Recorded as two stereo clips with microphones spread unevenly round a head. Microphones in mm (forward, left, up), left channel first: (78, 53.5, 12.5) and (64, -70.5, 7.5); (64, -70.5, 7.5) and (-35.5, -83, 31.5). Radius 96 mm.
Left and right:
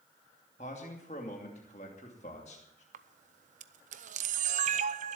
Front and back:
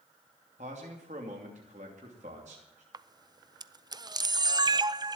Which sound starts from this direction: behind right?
A camera shutter, at 2.9 s.